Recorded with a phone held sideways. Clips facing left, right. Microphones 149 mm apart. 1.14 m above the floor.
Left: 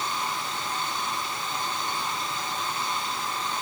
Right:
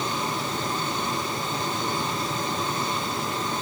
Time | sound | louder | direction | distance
0.0 | a fan | right 3 dB | 40° right (ahead or behind) | ?